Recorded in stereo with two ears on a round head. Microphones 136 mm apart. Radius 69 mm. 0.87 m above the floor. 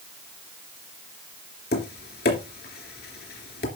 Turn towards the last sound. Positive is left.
turn(degrees=70)  # may be behind; listen again after turning